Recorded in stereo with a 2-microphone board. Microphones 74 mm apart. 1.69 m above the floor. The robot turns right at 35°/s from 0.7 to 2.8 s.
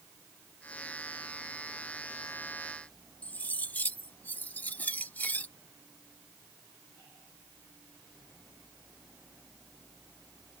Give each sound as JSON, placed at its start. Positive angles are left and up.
{"t": 3.2, "sound": "cutlery clinking", "side_deg": 25}